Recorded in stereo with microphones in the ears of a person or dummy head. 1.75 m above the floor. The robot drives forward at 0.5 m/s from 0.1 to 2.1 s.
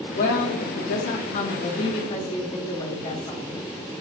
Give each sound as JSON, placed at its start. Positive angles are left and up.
{"t": 0.1, "sound": "a woman speaking", "side_deg": 45, "distance_m": 0.6}